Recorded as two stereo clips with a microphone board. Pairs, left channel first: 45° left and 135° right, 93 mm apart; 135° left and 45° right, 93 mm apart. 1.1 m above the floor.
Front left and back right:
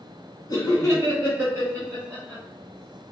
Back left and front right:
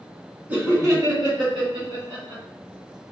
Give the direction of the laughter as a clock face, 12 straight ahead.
11 o'clock.